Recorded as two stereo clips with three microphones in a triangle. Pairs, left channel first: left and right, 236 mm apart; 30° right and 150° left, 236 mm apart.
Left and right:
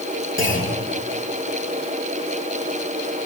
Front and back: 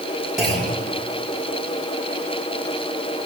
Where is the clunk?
120° right, 8.5 m.